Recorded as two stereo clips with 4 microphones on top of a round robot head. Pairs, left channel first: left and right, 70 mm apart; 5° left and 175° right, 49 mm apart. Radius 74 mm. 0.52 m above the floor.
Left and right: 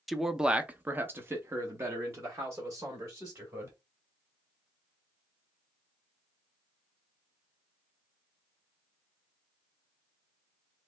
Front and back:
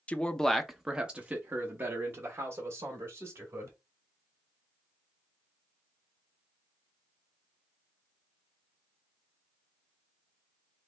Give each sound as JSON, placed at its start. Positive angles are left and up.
{"t": 0.1, "sound": "a man speaking", "azimuth_deg": 0, "distance_m": 0.8}